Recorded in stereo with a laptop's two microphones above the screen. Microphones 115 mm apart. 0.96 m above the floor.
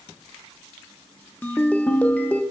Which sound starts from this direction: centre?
A ringtone, at 1.4 s.